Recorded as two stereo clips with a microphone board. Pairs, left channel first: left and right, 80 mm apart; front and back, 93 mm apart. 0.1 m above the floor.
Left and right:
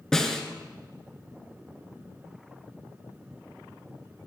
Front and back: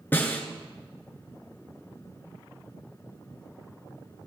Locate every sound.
0.1 s a snare drum: 20° left, 1.8 m